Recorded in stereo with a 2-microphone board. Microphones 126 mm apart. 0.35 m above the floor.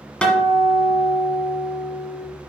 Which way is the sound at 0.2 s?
10° left (ahead or behind).